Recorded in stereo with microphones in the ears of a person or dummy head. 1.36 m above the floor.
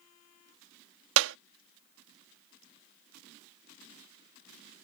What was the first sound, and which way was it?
A clap, 75° right (ahead or behind).